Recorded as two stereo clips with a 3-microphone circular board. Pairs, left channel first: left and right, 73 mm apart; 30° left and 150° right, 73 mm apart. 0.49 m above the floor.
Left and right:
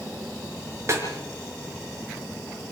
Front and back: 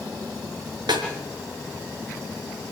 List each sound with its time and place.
0.9 s a snare drum: 140° right, 4 m